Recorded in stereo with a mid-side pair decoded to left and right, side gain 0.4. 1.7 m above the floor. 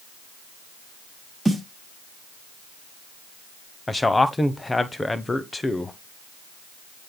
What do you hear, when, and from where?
1.4 s a snare drum: straight ahead, 7.5 m
3.9 s a man speaking: 20° left, 1.0 m